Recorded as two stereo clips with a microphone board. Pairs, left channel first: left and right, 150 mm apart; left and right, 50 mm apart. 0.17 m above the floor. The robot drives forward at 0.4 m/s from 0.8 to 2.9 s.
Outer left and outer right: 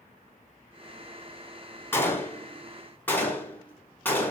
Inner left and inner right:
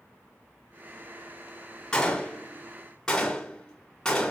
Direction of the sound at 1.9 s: 15° left (ahead or behind).